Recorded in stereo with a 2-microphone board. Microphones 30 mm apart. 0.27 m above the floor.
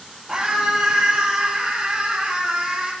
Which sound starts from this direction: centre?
A scream, at 0.3 s.